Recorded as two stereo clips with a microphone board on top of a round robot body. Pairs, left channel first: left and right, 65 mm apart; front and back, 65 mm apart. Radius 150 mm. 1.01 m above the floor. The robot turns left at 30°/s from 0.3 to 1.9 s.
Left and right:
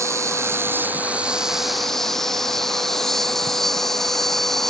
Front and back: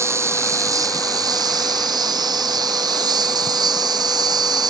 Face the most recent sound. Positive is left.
turn(degrees=175)